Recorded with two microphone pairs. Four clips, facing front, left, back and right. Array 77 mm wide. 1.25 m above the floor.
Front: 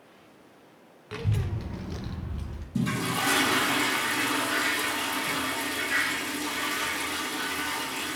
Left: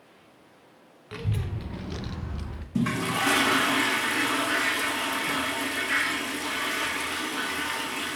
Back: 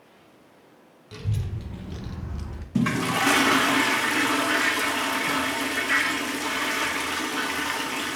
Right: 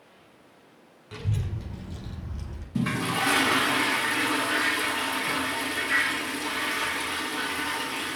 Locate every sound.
1.1 s a child speaking: 30° left, 1.0 m; by 2.6 s 130° left, 0.7 m
2.8 s a toilet flushing: 175° left, 0.9 m